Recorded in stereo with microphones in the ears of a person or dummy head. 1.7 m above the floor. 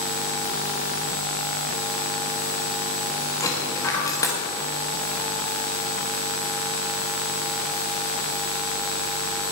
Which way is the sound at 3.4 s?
20° left (ahead or behind).